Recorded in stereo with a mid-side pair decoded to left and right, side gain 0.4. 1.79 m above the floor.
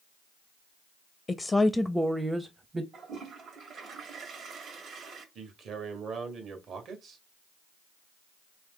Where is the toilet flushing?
65° right, 1.6 m.